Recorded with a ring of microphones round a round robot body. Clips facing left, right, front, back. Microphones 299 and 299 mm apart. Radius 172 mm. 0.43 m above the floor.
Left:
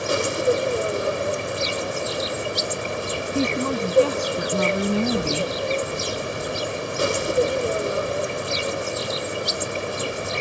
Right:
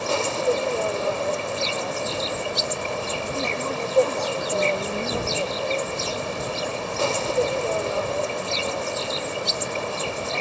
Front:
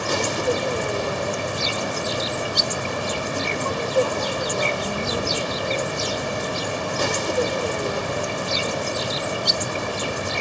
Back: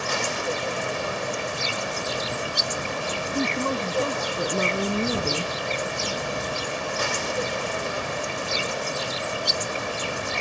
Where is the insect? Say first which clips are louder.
Left 2 dB, front 6 dB; 25° left.